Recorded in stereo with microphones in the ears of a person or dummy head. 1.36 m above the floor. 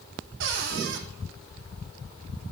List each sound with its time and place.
0.4 s a cupboard door: 65° right (ahead or behind), 1.4 m